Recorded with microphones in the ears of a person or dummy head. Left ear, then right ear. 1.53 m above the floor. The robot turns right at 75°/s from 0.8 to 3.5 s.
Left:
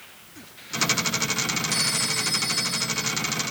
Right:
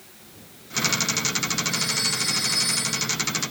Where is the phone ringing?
135° left, 1.7 m; by 3.1 s 125° right, 1.7 m.